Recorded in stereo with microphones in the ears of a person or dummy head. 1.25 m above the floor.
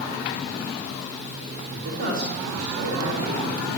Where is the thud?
I don't hear a thud.